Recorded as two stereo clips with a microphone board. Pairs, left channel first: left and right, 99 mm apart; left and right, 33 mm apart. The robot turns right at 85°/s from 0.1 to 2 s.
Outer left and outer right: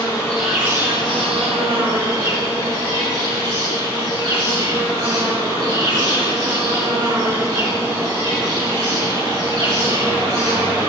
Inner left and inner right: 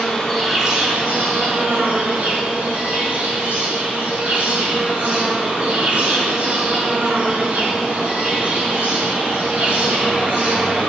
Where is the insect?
150° left, 2.5 m; by 10.9 s 50° right, 2.5 m.